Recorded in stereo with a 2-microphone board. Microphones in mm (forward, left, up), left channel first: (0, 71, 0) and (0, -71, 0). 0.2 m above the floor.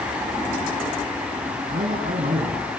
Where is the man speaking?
75° right (ahead or behind), 5.5 m.